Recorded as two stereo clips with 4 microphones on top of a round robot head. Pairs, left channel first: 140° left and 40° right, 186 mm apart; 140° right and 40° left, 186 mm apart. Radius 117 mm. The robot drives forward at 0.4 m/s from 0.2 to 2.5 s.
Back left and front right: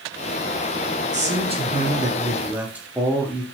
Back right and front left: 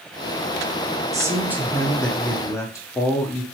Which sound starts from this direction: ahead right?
A man speaking, at 1.1 s.